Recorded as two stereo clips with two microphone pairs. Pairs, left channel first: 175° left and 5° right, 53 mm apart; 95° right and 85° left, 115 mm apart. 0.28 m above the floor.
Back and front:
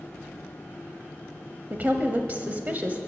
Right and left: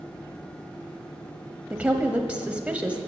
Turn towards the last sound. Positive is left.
turn(degrees=15)